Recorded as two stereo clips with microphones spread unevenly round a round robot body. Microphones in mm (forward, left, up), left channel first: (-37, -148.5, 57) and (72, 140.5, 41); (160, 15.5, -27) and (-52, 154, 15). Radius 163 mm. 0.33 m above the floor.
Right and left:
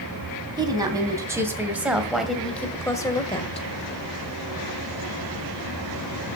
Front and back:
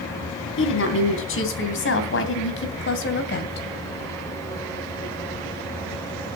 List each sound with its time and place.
0.6 s a woman speaking: 5° right, 3.5 m; by 3.6 s 45° right, 1.9 m